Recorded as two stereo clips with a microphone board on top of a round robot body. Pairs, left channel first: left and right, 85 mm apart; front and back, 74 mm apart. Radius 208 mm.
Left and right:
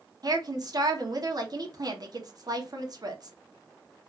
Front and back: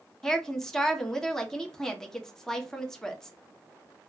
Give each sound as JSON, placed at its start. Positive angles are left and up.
{"t": 0.2, "sound": "a woman speaking", "azimuth_deg": -80, "distance_m": 1.3}